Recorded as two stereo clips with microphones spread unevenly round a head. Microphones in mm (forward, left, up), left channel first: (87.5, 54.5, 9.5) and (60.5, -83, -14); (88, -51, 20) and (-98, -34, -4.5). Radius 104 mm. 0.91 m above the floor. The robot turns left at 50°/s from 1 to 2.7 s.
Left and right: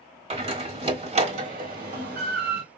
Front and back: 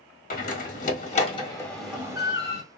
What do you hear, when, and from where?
0.3 s a door slam: 50° right, 1.6 m; by 2.6 s 135° right, 1.6 m